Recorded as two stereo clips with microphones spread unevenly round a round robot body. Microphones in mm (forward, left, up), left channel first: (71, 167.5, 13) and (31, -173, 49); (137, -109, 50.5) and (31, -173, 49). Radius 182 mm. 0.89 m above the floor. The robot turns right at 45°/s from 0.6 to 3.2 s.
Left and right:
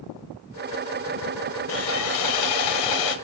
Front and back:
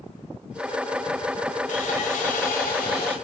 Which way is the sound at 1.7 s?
30° left.